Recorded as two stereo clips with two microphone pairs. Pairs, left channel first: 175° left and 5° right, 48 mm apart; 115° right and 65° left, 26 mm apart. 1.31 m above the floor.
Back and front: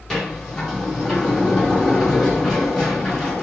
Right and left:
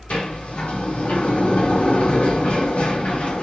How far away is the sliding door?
About 2 m.